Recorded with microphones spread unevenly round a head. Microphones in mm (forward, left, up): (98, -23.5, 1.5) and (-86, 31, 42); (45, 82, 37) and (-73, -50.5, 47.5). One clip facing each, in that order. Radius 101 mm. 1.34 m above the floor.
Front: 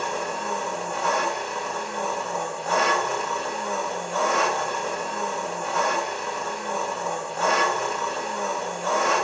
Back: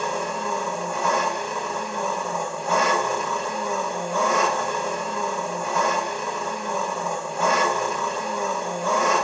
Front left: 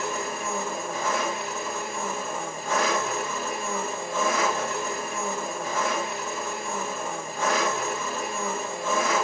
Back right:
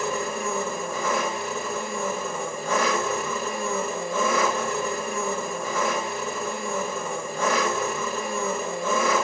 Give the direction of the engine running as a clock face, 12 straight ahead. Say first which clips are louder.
Back 2 dB, back right 3 dB; 4 o'clock.